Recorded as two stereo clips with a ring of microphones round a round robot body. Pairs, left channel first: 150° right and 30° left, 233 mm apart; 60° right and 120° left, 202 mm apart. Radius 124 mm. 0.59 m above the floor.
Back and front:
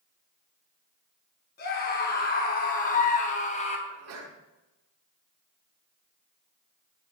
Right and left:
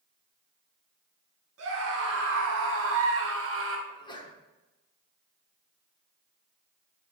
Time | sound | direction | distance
1.6 | a scream | 160° left | 5 m
3.9 | a sneeze | 5° left | 6 m